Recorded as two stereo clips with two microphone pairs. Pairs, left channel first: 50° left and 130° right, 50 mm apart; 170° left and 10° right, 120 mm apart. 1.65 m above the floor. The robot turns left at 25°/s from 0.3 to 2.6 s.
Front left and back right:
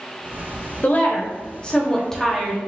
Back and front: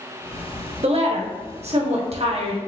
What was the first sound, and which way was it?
A woman speaking, 5° left.